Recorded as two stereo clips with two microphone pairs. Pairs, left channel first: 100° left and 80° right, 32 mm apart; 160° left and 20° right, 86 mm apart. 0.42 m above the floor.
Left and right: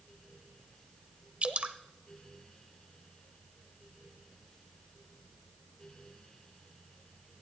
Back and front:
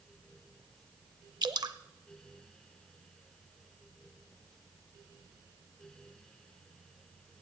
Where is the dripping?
45° right, 0.7 m.